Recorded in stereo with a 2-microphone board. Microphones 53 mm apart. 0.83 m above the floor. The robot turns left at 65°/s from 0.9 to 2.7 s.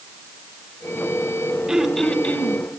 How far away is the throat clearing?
About 2.5 m.